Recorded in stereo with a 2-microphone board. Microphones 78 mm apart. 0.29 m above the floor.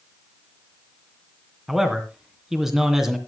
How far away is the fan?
I don't hear a fan.